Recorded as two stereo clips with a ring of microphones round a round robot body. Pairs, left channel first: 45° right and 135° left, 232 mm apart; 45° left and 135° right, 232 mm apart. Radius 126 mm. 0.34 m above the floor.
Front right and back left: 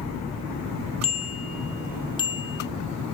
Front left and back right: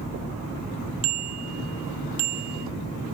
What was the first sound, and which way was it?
A bicycle bell, 110° right.